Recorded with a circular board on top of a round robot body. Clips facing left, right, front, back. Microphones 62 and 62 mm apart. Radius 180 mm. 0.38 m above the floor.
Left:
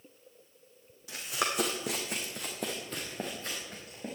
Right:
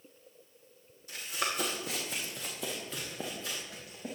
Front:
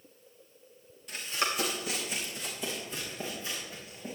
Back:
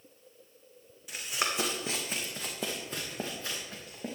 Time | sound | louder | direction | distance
1.1 | running footsteps | left 2 dB, front 1 dB | 95° left | 1.6 m